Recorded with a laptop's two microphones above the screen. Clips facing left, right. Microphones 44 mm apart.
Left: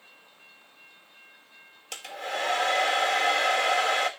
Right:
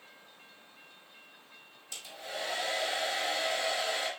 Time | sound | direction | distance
1.9 | a hair dryer | 75° left (ahead or behind) | 1.2 m